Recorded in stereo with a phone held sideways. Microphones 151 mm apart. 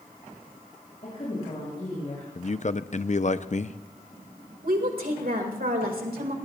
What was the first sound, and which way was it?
A woman speaking, 45° left (ahead or behind).